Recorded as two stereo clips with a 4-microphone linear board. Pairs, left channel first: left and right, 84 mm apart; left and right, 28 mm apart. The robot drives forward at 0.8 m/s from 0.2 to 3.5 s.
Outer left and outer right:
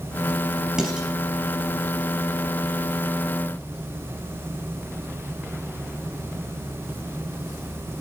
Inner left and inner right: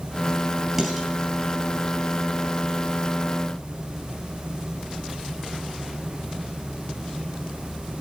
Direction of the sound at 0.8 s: 10° right (ahead or behind).